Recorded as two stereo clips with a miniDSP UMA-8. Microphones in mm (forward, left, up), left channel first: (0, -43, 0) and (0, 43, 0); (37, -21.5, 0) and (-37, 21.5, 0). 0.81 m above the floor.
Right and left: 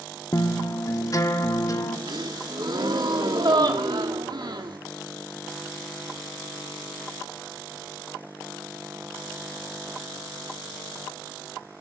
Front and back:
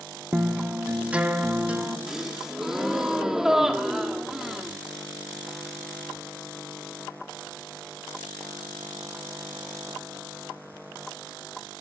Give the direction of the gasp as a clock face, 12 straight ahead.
10 o'clock.